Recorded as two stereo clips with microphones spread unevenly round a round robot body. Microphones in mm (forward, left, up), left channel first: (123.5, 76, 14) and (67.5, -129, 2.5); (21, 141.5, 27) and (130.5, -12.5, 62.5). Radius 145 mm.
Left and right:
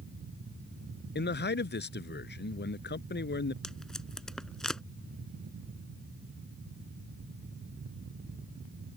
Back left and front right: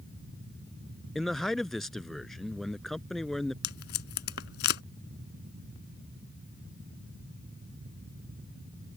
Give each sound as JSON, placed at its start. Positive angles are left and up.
{"t": 1.1, "sound": "a man speaking", "azimuth_deg": 35}
{"t": 3.6, "sound": "tape being pulled", "azimuth_deg": 160}